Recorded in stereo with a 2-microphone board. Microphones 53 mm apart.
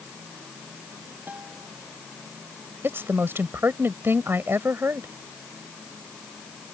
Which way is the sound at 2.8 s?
50° right (ahead or behind).